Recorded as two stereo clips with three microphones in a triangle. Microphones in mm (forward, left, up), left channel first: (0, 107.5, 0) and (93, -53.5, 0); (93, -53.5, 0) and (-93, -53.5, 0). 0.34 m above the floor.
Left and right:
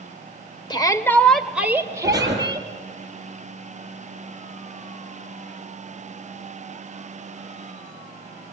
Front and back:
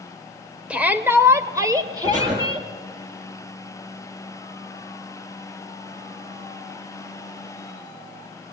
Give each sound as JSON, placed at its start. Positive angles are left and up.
{"t": 0.7, "sound": "a shout", "azimuth_deg": 105, "distance_m": 1.6}
{"t": 2.0, "sound": "breathing", "azimuth_deg": -130, "distance_m": 7.5}